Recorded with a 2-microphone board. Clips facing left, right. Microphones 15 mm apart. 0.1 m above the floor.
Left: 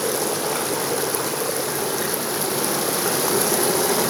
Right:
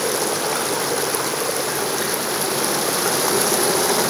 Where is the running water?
10° right (ahead or behind), 1.7 m.